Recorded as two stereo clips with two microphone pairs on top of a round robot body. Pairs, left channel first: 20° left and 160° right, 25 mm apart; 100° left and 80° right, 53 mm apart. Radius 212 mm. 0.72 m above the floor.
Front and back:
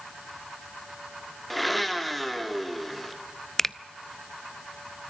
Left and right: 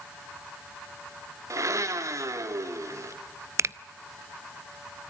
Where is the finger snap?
60° right, 0.7 m.